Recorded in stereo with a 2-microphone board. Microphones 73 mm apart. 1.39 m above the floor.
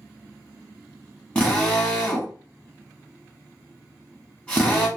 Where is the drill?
15° left (ahead or behind), 1.1 m.